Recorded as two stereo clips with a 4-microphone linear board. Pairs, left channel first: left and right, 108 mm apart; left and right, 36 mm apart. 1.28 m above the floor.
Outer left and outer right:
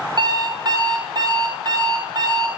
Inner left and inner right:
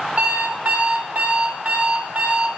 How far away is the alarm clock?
About 1.0 m.